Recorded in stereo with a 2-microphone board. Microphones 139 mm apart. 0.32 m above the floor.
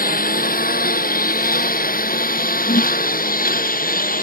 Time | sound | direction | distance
0.0 | a lawn mower | 80° left | ?
2.7 | a whoosh | 70° left (ahead or behind) | ?